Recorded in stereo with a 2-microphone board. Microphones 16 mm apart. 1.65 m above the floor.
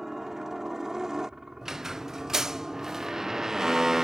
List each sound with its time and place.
0.0 s a helicopter: 35° right (ahead or behind)
1.6 s a squeak: 30° right (ahead or behind)